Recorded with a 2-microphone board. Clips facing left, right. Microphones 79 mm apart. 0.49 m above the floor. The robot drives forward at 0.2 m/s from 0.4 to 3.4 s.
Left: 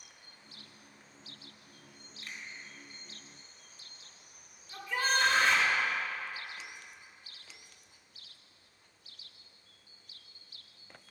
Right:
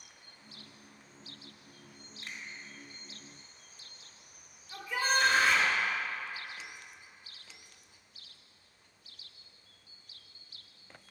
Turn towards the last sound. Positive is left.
turn(degrees=-5)  # may be behind; listen again after turning